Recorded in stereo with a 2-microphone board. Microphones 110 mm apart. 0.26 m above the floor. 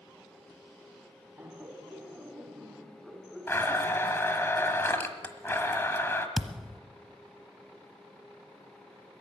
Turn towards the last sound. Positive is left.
turn(degrees=0)  # may be behind; listen again after turning